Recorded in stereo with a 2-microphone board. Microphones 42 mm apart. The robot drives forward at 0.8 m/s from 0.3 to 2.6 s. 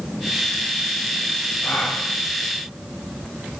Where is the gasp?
45° left (ahead or behind), 7.5 m.